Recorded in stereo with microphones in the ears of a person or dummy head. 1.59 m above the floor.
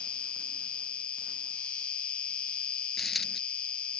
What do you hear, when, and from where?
0.0 s an insect: 5° left (ahead or behind)
3.0 s a dropped coin: 5° left (ahead or behind)